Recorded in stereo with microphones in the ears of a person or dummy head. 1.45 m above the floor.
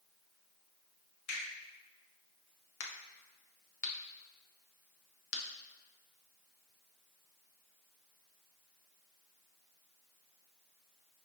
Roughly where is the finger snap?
Left.